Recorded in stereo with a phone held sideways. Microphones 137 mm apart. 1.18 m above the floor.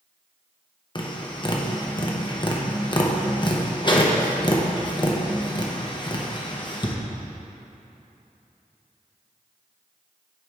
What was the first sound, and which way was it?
Tapping, 35° left (ahead or behind).